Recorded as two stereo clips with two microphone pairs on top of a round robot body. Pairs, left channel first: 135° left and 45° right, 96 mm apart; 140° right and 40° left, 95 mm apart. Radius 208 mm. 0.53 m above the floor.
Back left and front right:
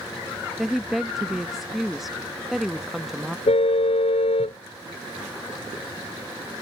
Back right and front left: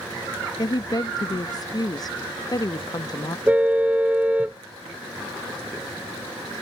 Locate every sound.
0.6 s a woman speaking: 130° right
3.5 s a car horn: 120° left